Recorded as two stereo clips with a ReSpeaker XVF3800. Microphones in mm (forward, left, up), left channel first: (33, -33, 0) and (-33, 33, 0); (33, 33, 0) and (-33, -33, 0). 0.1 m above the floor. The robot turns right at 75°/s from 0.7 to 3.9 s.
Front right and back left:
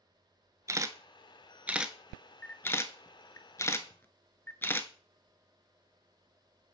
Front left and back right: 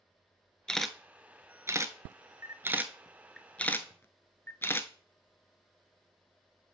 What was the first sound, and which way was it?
A camera shutter, 120° left.